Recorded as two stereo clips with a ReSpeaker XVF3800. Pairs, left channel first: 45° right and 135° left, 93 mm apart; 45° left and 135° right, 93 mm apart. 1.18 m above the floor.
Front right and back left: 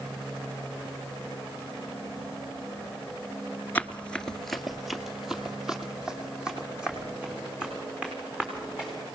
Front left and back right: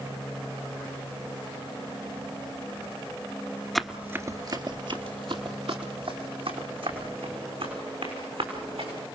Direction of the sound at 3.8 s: 35° right.